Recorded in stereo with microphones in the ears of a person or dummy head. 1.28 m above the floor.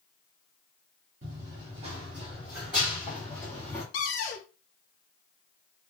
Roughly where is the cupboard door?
Left.